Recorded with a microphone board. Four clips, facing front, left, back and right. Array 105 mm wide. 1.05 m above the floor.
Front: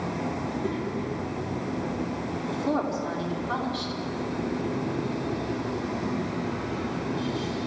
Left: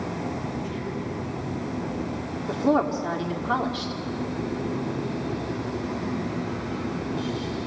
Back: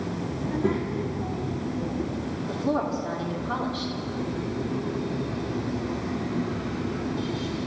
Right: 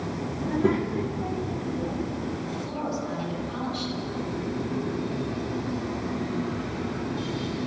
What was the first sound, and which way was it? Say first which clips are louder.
A child speaking: right 7 dB, back 3 dB; 115° right.